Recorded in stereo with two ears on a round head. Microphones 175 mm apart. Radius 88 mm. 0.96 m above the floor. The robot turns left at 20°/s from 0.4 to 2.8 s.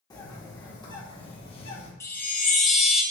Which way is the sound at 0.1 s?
20° left (ahead or behind).